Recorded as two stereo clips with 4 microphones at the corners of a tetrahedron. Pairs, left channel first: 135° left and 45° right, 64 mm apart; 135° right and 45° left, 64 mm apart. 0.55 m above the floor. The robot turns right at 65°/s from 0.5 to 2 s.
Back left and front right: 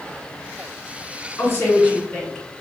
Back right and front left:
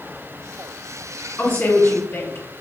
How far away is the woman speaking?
About 1.6 m.